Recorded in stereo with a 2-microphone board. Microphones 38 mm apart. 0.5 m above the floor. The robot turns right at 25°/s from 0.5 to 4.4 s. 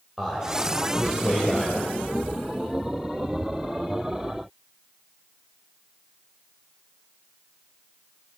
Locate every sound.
0.2 s a man speaking: centre (ahead or behind), 2.5 m; by 2.0 s 35° left (ahead or behind), 2.5 m